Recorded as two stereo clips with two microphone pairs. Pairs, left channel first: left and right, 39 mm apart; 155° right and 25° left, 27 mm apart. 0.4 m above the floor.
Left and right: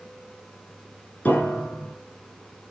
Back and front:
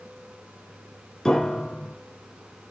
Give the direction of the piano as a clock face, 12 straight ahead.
7 o'clock.